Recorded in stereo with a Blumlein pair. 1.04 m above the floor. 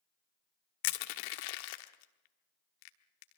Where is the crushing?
45° left, 1.2 m.